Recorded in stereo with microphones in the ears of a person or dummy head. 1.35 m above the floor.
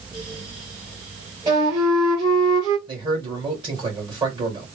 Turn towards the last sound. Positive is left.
turn(degrees=-25)  # may be behind; listen again after turning